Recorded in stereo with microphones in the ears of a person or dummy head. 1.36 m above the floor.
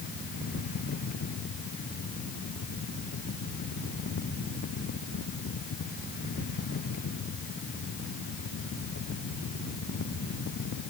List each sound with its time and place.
Only background noise.